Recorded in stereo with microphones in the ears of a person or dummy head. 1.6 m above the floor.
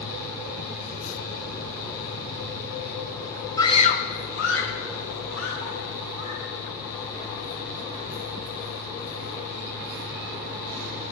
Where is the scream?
15° left (ahead or behind), 1.0 m; by 6.5 s 90° left, 4.5 m.